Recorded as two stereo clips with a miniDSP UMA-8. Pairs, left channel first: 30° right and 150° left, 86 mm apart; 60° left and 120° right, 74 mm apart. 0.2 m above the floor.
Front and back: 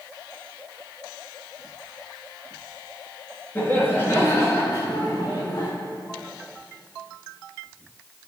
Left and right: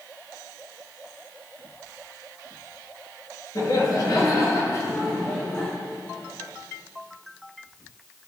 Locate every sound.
3.5 s laughter: 35° left, 3.5 m; by 5.7 s 5° right, 3 m